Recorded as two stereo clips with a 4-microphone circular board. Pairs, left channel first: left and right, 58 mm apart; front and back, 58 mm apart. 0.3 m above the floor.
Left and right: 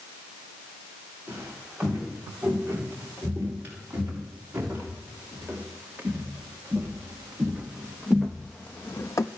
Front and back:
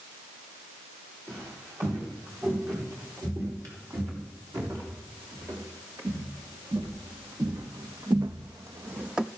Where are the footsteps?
145° right, 7 m; by 9.3 s 100° left, 0.6 m.